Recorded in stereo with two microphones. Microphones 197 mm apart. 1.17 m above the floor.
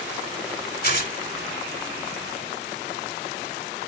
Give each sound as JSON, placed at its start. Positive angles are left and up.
{"t": 0.8, "sound": "tearing paper", "side_deg": 50, "distance_m": 1.5}